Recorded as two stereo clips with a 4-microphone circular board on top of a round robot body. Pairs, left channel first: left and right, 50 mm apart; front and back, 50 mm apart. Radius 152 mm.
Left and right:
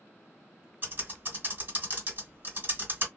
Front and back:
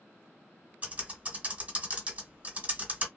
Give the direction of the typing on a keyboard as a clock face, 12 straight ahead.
4 o'clock.